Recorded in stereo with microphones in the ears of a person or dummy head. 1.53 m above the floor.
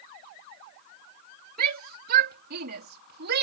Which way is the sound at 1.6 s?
55° right (ahead or behind).